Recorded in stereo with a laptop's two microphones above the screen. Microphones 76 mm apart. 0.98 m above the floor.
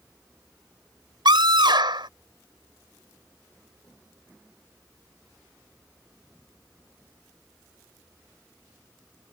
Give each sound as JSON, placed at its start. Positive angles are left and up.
{"t": 1.2, "sound": "a scream", "side_deg": -85}